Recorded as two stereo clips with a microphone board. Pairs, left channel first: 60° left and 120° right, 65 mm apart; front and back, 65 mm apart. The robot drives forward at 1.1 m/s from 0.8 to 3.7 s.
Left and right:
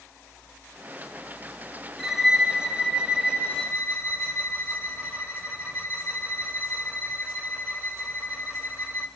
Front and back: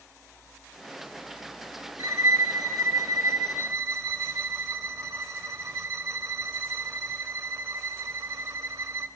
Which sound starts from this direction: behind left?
A violin, at 2.0 s.